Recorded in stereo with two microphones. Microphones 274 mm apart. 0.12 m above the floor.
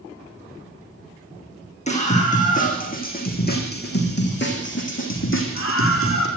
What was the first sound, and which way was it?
A scream, 25° left (ahead or behind).